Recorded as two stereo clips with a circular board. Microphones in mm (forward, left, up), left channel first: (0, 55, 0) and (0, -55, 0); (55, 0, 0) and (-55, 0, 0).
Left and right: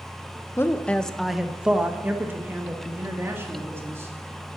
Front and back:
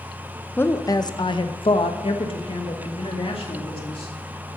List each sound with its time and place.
0.6 s a woman speaking: 50° left, 0.6 m; by 4.1 s 25° right, 2.5 m